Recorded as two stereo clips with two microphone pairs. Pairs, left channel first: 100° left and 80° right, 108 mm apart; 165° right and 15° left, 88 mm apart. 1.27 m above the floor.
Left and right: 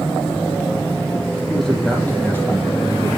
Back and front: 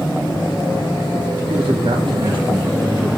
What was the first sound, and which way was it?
A man speaking, 15° left.